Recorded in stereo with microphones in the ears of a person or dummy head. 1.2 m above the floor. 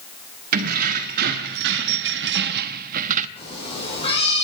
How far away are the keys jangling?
About 1.4 m.